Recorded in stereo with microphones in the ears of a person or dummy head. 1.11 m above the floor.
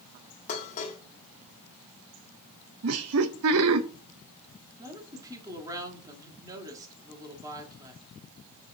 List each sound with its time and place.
0.5 s dishes clattering: 40° left (ahead or behind), 1.4 m
2.8 s laughter: 75° right (ahead or behind), 0.7 m
4.8 s a woman speaking: 15° right (ahead or behind), 2 m